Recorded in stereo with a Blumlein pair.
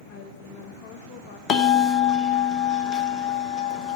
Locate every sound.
0.1 s a woman speaking: 45° left, 1.2 m
1.5 s a bell: 25° left, 1.0 m